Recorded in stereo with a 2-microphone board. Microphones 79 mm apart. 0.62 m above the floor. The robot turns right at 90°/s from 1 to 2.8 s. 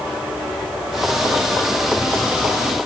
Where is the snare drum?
No snare drum in this recording.